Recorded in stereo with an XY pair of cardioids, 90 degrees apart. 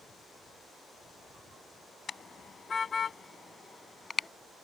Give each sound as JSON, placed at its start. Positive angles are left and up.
{"t": 2.1, "sound": "a car horn", "azimuth_deg": 50}